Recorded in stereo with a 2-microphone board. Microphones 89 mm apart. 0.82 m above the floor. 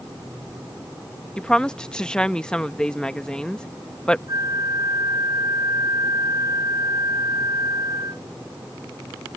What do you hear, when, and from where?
1.4 s a woman speaking: 10° left (ahead or behind)
4.3 s a flute: 40° right (ahead or behind)